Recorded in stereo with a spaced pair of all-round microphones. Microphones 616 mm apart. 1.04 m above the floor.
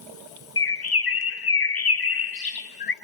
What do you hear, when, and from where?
0.6 s a bird: 35° left (ahead or behind), 0.7 m